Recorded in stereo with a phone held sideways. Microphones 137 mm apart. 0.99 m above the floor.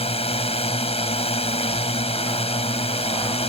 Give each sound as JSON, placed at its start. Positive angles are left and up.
{"t": 0.0, "sound": "a drone", "side_deg": 50}